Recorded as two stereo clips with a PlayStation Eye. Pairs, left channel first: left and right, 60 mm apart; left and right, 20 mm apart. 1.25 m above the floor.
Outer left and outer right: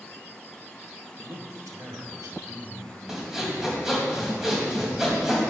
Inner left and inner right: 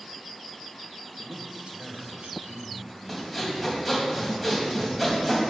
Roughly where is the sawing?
Centre.